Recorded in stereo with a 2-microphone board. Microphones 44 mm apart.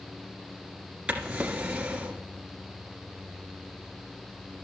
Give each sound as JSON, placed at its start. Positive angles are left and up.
{"t": 1.1, "sound": "a drawer", "side_deg": -25, "distance_m": 1.5}